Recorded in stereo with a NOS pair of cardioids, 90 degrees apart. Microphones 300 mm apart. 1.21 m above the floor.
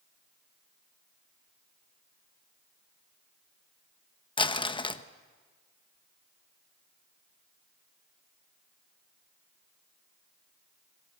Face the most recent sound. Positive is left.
turn(degrees=15)